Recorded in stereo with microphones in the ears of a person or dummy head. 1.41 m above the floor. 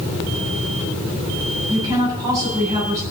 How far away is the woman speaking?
About 8 m.